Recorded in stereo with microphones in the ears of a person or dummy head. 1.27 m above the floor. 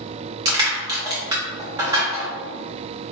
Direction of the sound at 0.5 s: 20° right (ahead or behind).